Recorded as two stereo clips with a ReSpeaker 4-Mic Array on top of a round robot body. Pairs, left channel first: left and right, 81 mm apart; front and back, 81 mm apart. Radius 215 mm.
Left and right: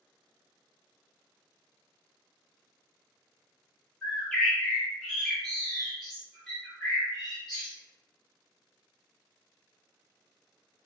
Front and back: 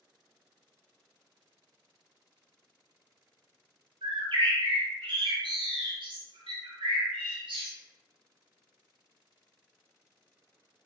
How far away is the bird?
About 0.7 m.